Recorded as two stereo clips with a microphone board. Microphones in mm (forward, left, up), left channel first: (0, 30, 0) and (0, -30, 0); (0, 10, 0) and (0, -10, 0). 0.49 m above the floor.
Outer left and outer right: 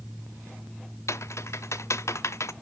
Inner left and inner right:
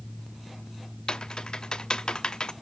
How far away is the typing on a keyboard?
About 0.6 m.